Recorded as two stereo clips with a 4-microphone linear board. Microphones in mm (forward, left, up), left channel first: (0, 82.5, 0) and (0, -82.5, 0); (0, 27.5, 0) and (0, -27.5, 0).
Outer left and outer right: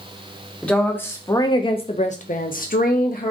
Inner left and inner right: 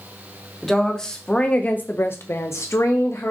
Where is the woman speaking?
5° left (ahead or behind), 1.0 m; by 3.3 s 55° left (ahead or behind), 0.8 m.